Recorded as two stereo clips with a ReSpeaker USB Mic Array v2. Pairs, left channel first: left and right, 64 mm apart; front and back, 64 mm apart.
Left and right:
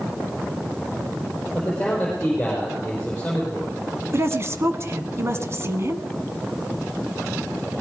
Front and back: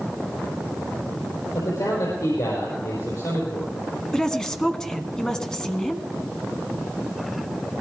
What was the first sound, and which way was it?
A man speaking, 15° left.